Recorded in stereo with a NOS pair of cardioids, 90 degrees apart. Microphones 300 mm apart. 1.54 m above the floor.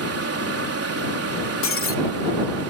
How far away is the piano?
No piano in this recording.